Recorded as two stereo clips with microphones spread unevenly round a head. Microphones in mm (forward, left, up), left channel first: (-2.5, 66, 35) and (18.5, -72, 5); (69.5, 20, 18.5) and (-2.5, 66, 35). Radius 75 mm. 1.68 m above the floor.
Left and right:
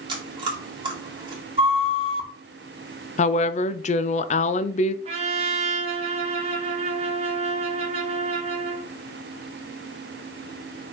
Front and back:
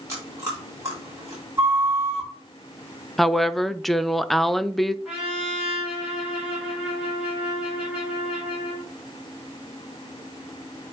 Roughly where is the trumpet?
Behind right.